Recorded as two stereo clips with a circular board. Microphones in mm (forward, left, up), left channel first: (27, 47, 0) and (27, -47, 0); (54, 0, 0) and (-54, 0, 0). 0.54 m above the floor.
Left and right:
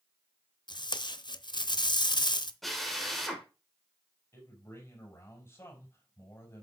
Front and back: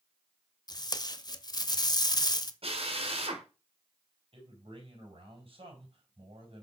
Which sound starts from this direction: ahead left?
Tape being pulled, at 0.7 s.